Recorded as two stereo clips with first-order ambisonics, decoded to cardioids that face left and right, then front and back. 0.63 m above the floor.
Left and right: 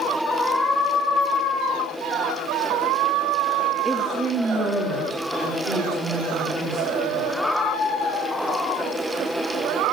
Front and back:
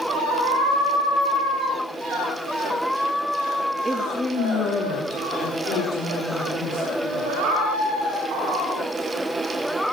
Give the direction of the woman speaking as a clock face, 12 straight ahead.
5 o'clock.